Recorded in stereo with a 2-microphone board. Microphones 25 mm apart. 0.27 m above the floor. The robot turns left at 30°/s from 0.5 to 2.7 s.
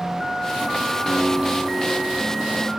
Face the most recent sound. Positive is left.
turn(degrees=35)